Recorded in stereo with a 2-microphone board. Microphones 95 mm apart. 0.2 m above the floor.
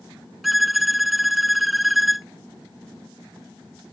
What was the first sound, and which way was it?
A violin, centre (ahead or behind).